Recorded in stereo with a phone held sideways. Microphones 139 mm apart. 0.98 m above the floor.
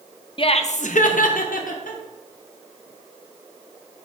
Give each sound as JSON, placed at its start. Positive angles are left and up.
{"t": 0.4, "sound": "laughter", "side_deg": 40, "distance_m": 0.5}